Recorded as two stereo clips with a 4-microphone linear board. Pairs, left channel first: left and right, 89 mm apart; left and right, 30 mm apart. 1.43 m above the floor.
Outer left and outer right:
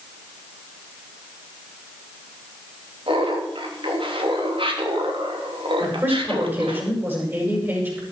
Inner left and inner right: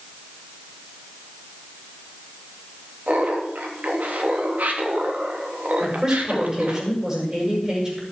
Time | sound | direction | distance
3.1 | laughter | 75° right (ahead or behind) | 3 m
5.8 | a woman speaking | 25° right (ahead or behind) | 8.5 m